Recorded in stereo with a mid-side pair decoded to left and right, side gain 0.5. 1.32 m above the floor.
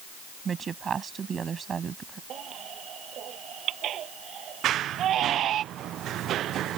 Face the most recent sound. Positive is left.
turn(degrees=-65)